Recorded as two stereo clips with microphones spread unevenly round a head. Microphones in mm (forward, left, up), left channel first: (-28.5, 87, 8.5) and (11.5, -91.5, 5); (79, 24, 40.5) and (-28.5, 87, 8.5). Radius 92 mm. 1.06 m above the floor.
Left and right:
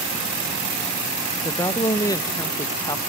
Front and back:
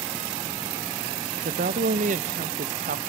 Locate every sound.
1.4 s a woman speaking: 175° left, 0.6 m